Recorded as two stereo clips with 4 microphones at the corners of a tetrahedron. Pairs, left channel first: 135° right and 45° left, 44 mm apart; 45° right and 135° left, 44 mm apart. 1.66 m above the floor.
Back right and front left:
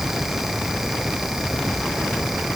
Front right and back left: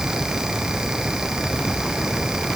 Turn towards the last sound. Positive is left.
No sound to turn to.